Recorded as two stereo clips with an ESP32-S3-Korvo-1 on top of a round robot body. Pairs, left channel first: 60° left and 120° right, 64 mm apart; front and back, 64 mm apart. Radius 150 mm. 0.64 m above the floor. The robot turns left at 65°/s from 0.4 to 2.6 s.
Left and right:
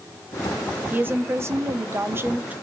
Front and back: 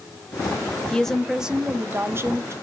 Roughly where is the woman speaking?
Right.